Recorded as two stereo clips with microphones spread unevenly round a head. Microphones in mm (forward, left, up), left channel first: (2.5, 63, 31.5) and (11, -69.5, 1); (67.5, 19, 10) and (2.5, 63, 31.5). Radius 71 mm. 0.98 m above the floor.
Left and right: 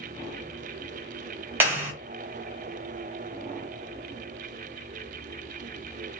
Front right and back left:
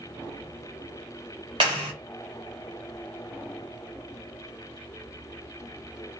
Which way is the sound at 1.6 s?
160° right.